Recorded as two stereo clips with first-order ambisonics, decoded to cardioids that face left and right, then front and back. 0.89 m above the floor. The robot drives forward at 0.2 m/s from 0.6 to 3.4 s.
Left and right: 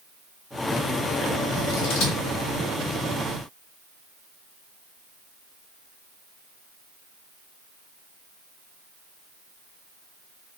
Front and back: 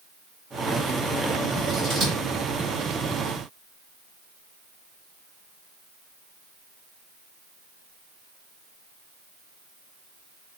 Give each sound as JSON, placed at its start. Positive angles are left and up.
{"t": 1.6, "sound": "scissors", "azimuth_deg": 115, "distance_m": 1.6}